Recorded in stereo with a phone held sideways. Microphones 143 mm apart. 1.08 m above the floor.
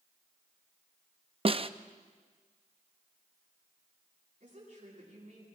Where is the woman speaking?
50° right (ahead or behind), 9 m.